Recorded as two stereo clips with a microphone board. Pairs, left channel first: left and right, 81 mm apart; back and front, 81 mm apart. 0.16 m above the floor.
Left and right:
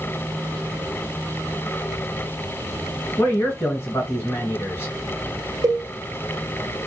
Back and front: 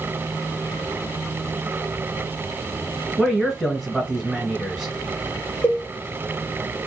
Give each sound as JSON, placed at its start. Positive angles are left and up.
{"t": 3.2, "sound": "a man speaking", "azimuth_deg": 85, "distance_m": 1.3}
{"t": 5.6, "sound": "a cowbell", "azimuth_deg": -120, "distance_m": 0.7}